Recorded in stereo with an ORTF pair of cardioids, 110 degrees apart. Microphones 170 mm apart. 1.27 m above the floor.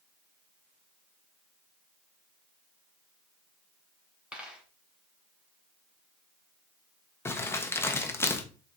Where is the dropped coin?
5° right, 2.5 m.